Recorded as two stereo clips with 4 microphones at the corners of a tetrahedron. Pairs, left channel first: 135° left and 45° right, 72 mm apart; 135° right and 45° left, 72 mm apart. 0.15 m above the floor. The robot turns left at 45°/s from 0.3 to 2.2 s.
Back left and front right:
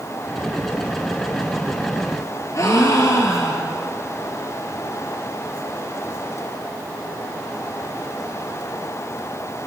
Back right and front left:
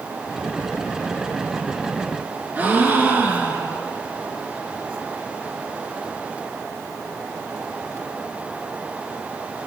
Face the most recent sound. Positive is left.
turn(degrees=105)